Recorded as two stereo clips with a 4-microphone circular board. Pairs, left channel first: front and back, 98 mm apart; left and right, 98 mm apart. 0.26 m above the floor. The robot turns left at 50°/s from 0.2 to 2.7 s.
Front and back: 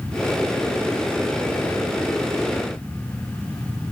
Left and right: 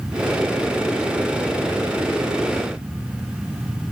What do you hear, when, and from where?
Only background noise.